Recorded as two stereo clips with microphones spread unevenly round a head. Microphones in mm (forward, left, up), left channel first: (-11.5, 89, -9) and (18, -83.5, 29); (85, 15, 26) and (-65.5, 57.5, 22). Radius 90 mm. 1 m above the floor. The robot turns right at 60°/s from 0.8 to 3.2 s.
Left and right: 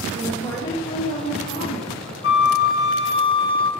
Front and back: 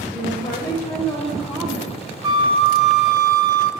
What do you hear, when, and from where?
0.1 s a woman speaking: 40° left, 1.7 m; by 2.0 s 110° left, 1.7 m
2.2 s a flute: 110° left, 0.7 m; by 3.7 s 165° left, 0.7 m